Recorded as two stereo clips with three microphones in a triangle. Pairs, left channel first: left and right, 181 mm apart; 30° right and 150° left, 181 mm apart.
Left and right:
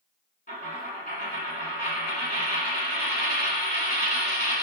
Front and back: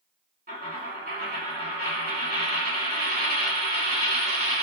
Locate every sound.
0.5 s a dropped coin: 120° left, 1.1 m